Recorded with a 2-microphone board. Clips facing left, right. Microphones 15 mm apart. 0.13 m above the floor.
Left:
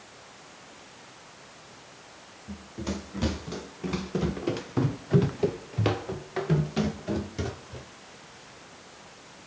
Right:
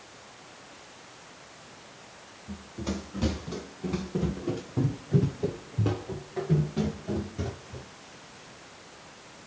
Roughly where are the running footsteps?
Centre.